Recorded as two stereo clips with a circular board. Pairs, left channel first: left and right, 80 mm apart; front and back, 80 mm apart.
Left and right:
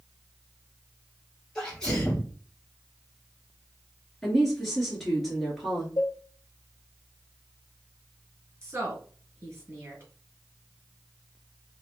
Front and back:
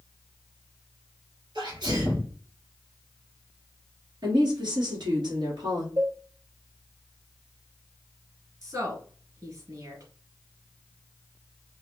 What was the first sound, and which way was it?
A sneeze, 170° left.